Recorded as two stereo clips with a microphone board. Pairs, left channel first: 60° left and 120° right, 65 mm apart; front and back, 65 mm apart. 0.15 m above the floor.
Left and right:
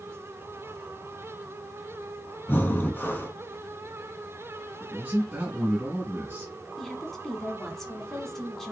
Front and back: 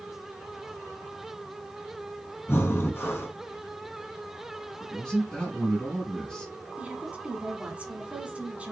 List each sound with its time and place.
2.5 s breathing: 20° left, 0.9 m
4.8 s a man speaking: 75° right, 1.4 m
6.8 s a woman speaking: 140° left, 1.1 m